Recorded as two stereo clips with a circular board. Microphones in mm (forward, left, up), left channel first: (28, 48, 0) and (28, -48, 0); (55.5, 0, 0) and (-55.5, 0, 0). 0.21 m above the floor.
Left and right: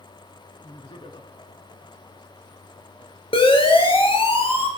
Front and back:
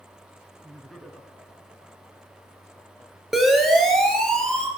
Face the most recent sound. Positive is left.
turn(degrees=80)